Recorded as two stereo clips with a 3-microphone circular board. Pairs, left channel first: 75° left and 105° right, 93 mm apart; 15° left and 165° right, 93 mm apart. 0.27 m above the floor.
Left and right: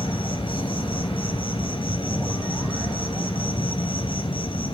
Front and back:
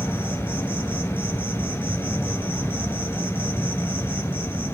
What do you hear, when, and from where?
0.0 s an insect: 80° left, 1.1 m